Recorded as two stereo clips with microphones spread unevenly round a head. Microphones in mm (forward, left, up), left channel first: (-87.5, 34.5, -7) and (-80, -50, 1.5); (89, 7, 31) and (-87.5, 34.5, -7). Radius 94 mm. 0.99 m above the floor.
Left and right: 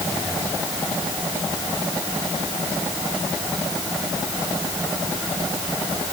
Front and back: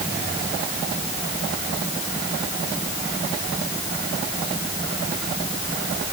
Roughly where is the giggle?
I don't hear a giggle.